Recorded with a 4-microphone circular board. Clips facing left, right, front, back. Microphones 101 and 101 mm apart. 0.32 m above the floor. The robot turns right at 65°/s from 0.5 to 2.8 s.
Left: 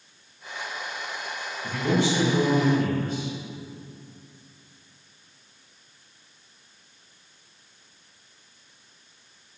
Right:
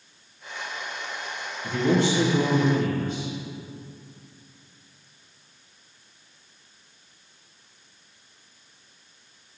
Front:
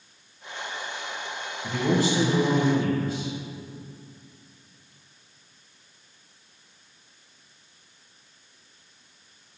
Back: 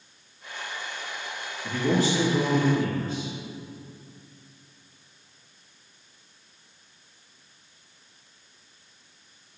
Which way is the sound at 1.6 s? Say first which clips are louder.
Right 2 dB, even; straight ahead.